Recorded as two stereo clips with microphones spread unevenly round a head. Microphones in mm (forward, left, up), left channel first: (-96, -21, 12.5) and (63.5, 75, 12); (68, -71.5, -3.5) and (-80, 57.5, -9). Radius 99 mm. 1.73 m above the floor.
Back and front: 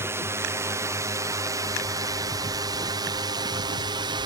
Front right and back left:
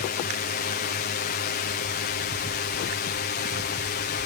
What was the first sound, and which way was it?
A drone, 40° right.